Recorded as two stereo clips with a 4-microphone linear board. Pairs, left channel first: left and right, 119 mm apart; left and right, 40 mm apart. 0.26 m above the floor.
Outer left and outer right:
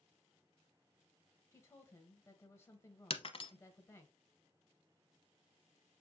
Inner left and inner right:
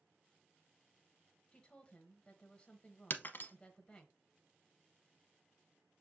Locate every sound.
1.5 s a woman speaking: 20° left (ahead or behind), 0.9 m
3.1 s breaking glass: 50° left (ahead or behind), 0.6 m